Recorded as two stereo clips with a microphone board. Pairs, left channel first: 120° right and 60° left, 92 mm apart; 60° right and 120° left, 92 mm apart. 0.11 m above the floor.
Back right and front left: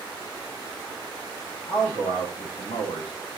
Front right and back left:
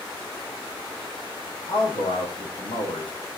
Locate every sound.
1.7 s a man speaking: 90° right, 6.5 m